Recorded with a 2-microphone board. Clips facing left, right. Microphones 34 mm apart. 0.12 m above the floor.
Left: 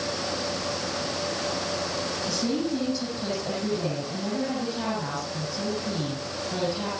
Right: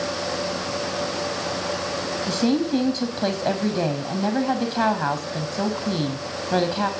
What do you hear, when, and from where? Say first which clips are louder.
2.3 s a woman speaking: right 7 dB; 60° right (ahead or behind), 4.5 m